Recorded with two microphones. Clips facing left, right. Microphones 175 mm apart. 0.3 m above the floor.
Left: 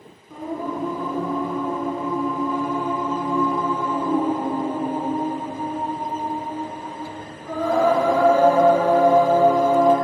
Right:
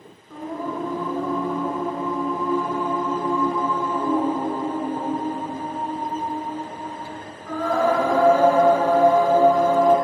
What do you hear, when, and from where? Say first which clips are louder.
0.3 s singing: left 1 dB; 20° left (ahead or behind), 4.5 m